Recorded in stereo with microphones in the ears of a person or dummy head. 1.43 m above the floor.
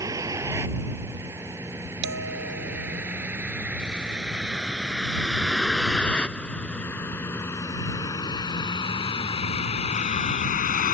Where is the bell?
75° right (ahead or behind).